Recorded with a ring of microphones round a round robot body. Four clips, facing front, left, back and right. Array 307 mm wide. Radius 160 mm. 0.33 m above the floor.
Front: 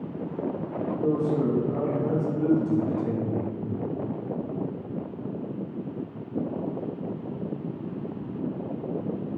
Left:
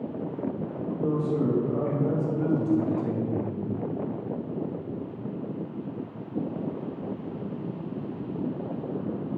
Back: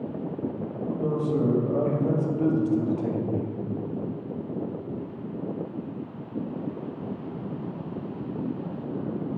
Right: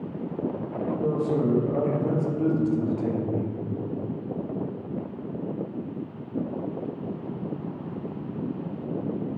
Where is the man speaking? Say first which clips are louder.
Right 1 dB, front 1 dB; 140° right, 1.8 m.